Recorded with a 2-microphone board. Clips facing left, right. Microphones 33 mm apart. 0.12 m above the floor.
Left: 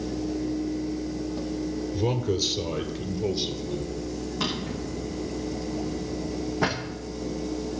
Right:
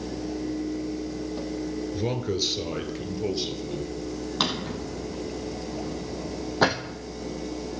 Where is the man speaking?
10° right (ahead or behind), 1.4 m; by 4.0 s 15° right (ahead or behind), 2 m.